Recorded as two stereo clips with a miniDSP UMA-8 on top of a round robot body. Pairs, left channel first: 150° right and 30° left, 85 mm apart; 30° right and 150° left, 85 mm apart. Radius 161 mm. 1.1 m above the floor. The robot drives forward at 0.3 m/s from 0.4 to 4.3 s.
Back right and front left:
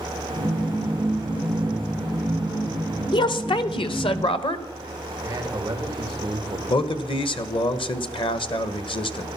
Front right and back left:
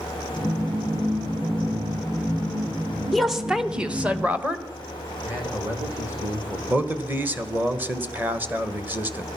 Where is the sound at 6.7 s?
140° right, 1.2 m.